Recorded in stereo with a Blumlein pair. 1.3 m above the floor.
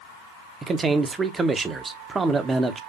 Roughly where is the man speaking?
Ahead.